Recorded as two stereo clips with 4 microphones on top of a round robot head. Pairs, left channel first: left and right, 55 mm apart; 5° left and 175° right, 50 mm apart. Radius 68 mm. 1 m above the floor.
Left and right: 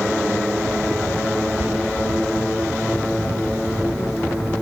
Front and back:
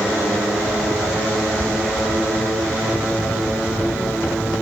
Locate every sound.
1.6 s whispering: 150° right, 2.5 m